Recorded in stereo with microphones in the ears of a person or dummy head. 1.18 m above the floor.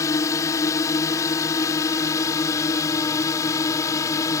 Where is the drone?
20° left (ahead or behind).